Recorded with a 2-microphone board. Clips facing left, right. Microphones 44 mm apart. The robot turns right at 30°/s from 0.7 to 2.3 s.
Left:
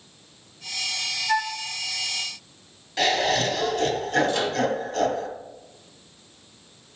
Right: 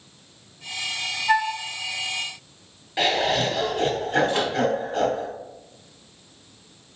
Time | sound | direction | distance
1.3 | a flute | 45° right (ahead or behind) | 1.1 m
3.0 | laughter | 20° right (ahead or behind) | 1.1 m
4.3 | a microwave | 25° right (ahead or behind) | 1.3 m